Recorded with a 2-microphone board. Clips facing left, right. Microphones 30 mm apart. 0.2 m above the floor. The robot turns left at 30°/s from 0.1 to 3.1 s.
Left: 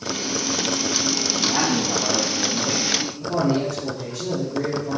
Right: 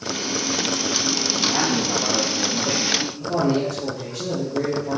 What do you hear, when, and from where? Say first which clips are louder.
1.4 s a man speaking: even; 30° right, 5 m; by 3.1 s 80° right, 5 m
3.2 s a man speaking: even; 50° right (ahead or behind), 4.5 m